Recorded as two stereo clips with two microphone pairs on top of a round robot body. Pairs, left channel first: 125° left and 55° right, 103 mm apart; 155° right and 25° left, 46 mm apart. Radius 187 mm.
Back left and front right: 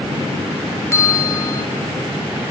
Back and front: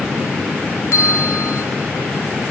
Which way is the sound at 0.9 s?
170° right.